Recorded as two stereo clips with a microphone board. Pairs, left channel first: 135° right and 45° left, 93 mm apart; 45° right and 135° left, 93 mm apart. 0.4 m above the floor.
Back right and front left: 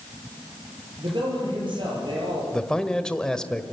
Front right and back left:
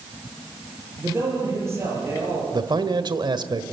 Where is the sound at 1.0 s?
75° left, 8.5 m.